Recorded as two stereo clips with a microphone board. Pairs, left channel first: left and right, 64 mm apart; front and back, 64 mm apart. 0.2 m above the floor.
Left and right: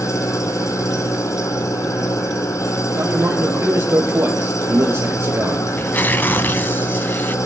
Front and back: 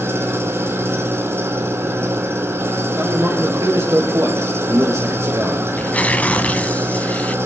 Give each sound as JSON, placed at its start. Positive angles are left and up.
{"t": 0.0, "sound": "an engine running", "azimuth_deg": 130, "distance_m": 1.7}
{"t": 3.0, "sound": "a man speaking", "azimuth_deg": -140, "distance_m": 5.0}
{"t": 5.8, "sound": "tearing paper", "azimuth_deg": 55, "distance_m": 0.8}